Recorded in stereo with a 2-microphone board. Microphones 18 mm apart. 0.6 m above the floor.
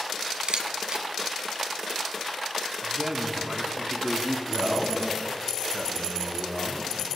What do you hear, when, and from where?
0.5 s a camera shutter: 70° right (ahead or behind), 1.1 m
2.8 s a man speaking: 45° right (ahead or behind), 1.4 m
4.5 s a man speaking: 15° right (ahead or behind), 3 m